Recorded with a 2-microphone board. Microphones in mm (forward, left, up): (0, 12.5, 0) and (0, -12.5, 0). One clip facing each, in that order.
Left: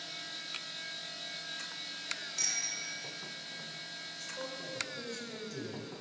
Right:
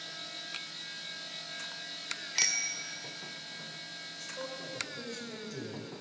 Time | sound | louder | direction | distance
2.4 | a bicycle bell | right 5 dB | 75° right (ahead or behind) | 2 m
4.2 | a man speaking | right 1 dB | 5° right (ahead or behind) | 3.5 m